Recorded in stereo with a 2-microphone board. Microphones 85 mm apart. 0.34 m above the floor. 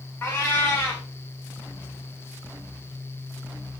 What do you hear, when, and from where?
0.2 s a cat meowing: 25° left (ahead or behind), 4 m